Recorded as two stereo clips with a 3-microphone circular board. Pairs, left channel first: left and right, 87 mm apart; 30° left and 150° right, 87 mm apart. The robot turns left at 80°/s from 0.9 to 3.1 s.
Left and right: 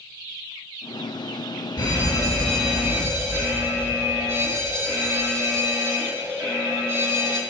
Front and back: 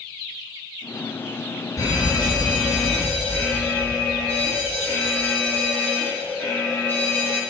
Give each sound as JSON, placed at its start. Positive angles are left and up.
{"t": 1.8, "sound": "an alarm", "azimuth_deg": 70, "distance_m": 1.2}